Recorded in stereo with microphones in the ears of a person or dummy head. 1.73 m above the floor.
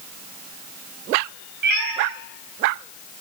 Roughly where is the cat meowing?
Right.